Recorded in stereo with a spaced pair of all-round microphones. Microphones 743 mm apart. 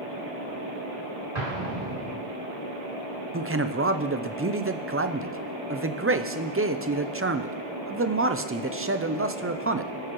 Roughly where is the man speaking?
Centre.